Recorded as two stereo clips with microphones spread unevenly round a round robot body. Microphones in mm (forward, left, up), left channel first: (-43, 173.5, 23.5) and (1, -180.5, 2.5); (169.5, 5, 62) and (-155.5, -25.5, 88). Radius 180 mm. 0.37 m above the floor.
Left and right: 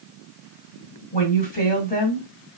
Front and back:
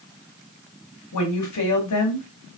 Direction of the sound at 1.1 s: 30° left.